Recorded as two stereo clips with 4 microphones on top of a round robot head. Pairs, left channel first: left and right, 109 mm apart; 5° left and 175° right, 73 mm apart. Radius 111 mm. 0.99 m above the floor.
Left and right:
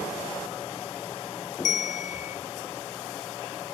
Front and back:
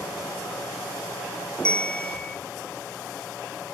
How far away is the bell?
About 0.7 m.